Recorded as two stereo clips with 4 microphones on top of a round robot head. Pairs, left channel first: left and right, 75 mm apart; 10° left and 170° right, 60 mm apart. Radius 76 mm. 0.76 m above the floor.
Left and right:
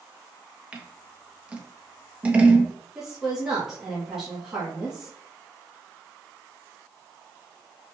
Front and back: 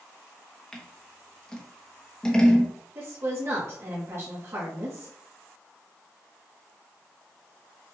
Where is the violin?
No violin in this recording.